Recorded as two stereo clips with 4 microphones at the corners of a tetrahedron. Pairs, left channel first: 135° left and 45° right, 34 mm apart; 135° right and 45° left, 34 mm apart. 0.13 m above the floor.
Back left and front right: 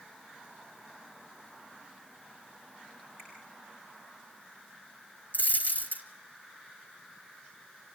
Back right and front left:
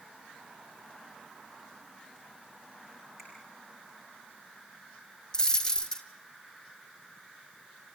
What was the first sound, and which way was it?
A finger snap, 140° left.